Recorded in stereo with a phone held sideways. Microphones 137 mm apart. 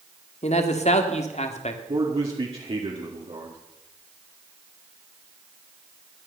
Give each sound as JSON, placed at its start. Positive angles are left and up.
{"t": 0.4, "sound": "a man speaking", "side_deg": 55, "distance_m": 1.9}
{"t": 1.9, "sound": "a man speaking", "side_deg": -45, "distance_m": 2.0}